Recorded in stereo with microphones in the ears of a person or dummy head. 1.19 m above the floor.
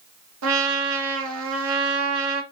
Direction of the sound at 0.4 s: 85° right.